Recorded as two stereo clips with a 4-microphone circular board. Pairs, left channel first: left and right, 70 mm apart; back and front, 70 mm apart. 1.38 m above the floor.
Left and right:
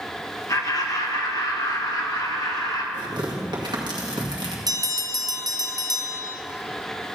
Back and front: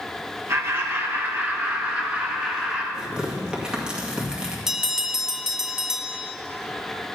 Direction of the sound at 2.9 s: 75° right.